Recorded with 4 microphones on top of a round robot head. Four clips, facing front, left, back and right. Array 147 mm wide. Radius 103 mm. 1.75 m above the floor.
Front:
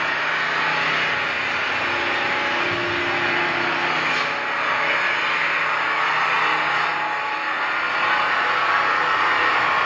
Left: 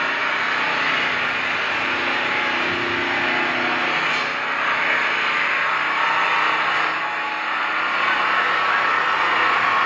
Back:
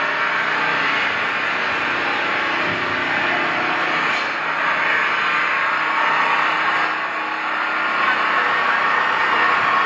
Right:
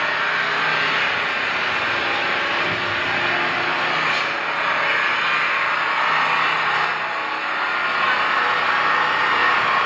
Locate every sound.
0.0 s an engine running: 160° right, 2.5 m